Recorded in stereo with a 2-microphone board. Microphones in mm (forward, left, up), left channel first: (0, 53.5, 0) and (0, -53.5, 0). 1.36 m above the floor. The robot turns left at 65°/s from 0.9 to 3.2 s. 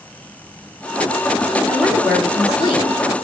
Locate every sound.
1.7 s a woman speaking: 165° right, 3 m; by 3.2 s 100° left, 3 m